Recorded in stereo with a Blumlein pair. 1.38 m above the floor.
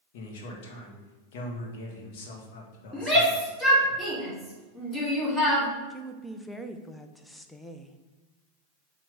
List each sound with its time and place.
0.1 s a man speaking: 50° left, 1.7 m
2.9 s a shout: 5° left, 2.5 m
5.9 s a woman speaking: 5° left, 0.7 m